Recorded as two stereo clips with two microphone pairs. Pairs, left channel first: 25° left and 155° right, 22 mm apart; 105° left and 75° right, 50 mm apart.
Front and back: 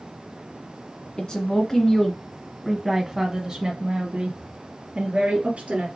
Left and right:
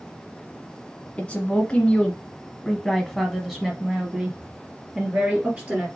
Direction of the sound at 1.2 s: 50° left.